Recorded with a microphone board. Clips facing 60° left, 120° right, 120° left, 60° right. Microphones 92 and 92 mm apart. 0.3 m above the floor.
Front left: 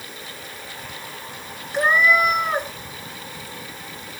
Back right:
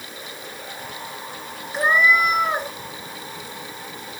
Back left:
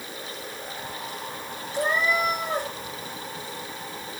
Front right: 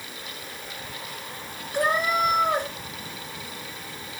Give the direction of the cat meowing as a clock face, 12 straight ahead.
1 o'clock.